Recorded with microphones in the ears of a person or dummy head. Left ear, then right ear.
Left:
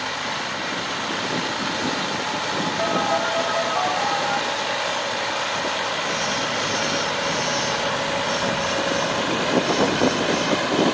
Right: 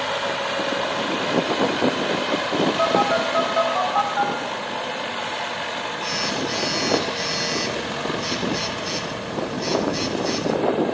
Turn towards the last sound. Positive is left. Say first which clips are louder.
# right 1 dB
turn(degrees=-65)  # may be behind; listen again after turning